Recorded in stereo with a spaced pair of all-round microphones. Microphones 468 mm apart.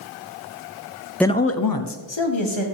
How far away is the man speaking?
About 0.6 m.